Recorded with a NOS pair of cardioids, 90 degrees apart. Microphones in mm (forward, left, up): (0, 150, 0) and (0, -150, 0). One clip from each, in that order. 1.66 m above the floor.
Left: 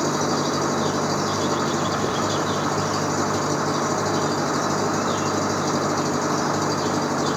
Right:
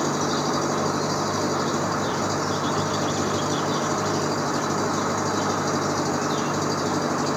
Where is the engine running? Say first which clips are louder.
Left 2 dB; 5° left.